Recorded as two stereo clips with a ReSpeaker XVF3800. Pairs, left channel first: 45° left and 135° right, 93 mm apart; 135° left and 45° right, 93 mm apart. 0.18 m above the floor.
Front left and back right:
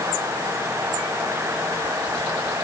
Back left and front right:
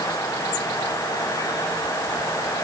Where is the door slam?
I don't hear a door slam.